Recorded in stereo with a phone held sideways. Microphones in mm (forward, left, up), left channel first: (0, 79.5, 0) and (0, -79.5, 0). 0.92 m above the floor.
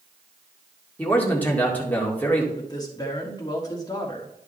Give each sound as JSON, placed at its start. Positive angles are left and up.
{"t": 1.0, "sound": "a man speaking", "side_deg": 10, "distance_m": 2.0}
{"t": 2.5, "sound": "a man speaking", "side_deg": 25, "distance_m": 1.9}